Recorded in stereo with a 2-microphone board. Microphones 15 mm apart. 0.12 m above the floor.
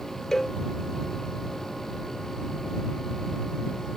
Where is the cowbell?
30° left (ahead or behind).